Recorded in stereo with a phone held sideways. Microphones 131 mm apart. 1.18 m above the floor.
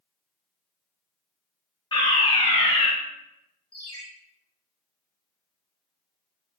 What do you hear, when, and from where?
1.9 s a fire alarm: 35° left (ahead or behind), 1.1 m
3.7 s a ringtone: 40° left (ahead or behind), 1.3 m